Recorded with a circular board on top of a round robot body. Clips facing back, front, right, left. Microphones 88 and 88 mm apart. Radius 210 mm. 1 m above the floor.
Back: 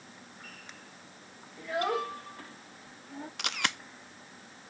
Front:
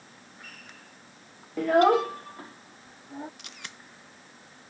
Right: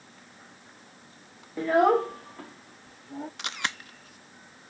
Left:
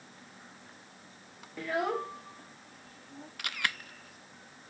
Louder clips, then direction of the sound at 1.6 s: Front 11 dB, right 11 dB; 25° right.